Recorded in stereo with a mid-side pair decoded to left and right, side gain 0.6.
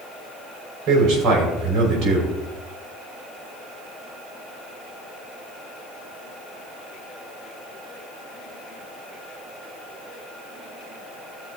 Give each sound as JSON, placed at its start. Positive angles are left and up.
{"t": 0.9, "sound": "a man speaking", "azimuth_deg": -60, "distance_m": 6.0}